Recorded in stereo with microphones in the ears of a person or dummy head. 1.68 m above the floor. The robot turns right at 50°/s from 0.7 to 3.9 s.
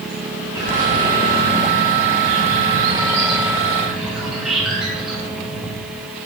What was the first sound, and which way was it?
A bird, 165° right.